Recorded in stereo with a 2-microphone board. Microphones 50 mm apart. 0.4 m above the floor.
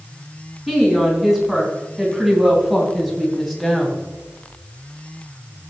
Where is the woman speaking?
5° right (ahead or behind), 4.5 m; by 4.0 s centre (ahead or behind), 2.5 m.